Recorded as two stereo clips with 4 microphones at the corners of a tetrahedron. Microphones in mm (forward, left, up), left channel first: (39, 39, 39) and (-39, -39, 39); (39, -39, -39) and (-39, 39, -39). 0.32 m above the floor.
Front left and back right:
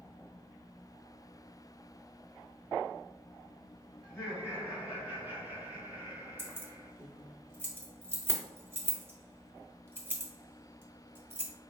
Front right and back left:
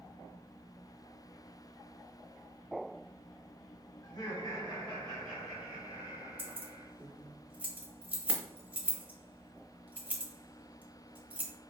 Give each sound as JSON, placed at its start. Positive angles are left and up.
{"t": 4.0, "sound": "laughter", "azimuth_deg": -55, "distance_m": 1.5}
{"t": 6.4, "sound": "keys jangling", "azimuth_deg": -175, "distance_m": 0.7}